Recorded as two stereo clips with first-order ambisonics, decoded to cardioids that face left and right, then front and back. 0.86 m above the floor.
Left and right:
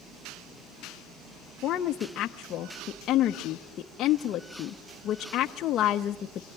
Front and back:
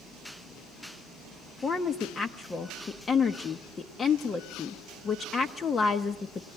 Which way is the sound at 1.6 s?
60° left.